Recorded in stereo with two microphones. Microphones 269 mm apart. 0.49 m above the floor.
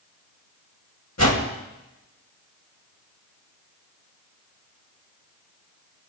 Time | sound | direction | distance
1.2 | a whoosh | 65° left (ahead or behind) | 2.5 m